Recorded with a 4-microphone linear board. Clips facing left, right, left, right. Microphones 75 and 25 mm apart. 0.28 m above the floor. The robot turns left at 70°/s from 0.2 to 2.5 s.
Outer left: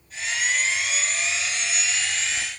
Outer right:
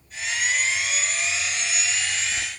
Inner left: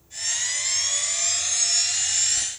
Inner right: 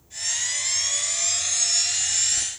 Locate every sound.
Only background noise.